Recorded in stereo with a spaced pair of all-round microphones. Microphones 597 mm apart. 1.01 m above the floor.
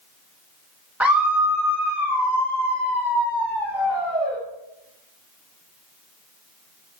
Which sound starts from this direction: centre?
A scream, at 1.0 s.